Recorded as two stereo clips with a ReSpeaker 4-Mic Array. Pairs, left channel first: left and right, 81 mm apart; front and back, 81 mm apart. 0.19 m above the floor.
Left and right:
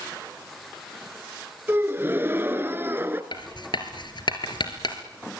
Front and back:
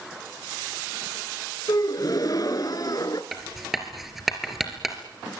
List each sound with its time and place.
1.7 s a gasp: 30° right, 1.3 m
3.3 s writing: 95° left, 2.5 m